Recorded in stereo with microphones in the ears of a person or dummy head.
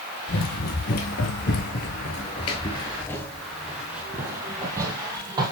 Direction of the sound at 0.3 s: 55° left (ahead or behind).